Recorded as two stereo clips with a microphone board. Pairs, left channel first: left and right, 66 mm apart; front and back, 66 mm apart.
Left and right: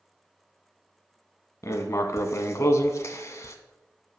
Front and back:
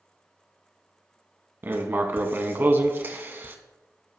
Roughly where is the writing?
Behind left.